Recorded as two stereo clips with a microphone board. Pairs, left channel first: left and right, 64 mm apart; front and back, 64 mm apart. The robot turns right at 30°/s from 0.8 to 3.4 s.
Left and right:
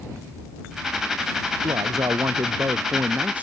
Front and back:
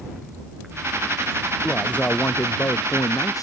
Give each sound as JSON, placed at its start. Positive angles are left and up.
{"t": 1.6, "sound": "a man speaking", "azimuth_deg": -75}